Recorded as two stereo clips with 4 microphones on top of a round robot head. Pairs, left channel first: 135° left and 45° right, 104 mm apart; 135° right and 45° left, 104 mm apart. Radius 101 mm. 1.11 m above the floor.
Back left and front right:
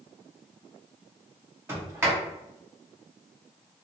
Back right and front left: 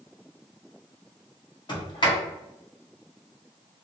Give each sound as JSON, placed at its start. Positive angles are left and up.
{"t": 1.7, "sound": "a sliding door", "azimuth_deg": -105, "distance_m": 1.2}